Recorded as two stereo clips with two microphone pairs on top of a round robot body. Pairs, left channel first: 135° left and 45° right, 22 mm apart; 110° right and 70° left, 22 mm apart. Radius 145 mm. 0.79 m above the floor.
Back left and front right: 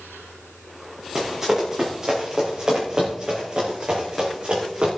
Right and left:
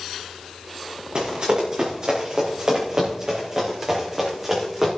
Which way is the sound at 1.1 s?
30° left.